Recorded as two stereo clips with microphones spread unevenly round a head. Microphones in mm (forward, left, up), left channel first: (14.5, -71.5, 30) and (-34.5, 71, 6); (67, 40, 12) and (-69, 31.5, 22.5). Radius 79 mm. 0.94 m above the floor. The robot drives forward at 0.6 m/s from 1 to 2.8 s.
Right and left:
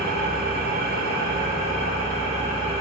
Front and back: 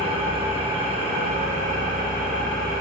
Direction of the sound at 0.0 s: 140° left.